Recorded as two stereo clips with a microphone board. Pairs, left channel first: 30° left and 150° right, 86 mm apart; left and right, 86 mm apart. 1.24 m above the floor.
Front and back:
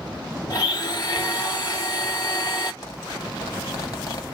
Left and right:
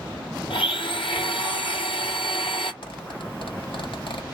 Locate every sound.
0.5 s a blender: 75° left, 2 m
2.8 s a zipper: 80° left, 1.9 m